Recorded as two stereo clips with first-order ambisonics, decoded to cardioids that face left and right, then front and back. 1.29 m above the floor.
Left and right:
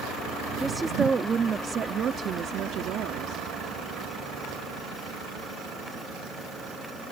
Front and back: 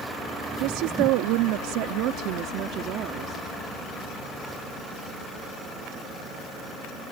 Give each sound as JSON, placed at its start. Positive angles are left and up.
{"t": 0.6, "sound": "a woman speaking", "azimuth_deg": -175}